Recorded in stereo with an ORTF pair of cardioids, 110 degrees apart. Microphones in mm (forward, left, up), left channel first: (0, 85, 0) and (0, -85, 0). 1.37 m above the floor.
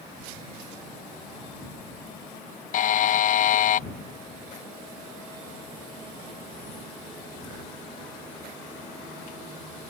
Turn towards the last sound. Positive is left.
turn(degrees=50)